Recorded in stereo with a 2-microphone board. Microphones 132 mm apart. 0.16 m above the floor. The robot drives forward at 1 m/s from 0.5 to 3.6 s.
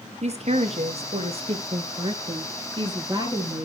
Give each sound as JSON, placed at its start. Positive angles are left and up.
{"t": 0.2, "sound": "a woman speaking", "side_deg": -55, "distance_m": 2.0}